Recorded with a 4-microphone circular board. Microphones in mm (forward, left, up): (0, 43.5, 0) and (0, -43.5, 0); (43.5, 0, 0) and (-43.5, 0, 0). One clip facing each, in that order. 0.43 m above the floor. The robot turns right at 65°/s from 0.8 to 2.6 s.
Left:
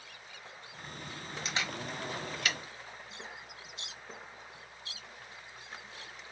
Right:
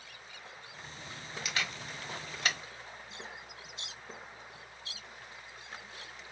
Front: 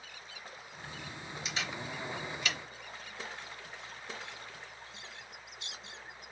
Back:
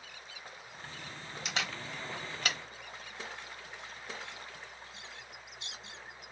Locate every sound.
1.4 s a camera shutter: 150° left, 1.0 m; by 2.6 s 140° right, 1.0 m